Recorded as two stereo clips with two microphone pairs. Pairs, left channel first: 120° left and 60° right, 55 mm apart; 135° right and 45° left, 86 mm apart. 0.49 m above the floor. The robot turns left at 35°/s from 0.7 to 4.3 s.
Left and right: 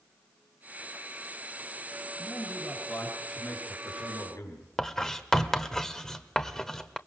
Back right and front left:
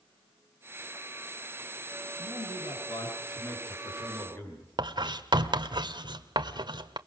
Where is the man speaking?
130° right, 7 m; by 4.7 s 155° left, 7 m.